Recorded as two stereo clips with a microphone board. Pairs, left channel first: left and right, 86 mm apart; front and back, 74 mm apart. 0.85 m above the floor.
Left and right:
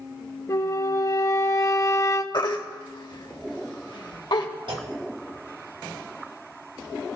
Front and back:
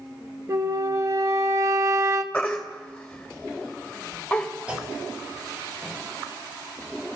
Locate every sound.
0.5 s a flute: 135° left, 0.7 m
2.3 s a baby crying: 75° left, 1.3 m
4.7 s a clunk: 105° right, 1.6 m